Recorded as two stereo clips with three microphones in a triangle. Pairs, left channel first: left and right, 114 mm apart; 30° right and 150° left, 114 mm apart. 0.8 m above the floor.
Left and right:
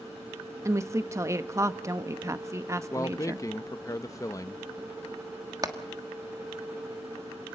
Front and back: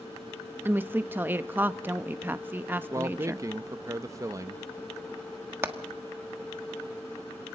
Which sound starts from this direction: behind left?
A man speaking, at 2.9 s.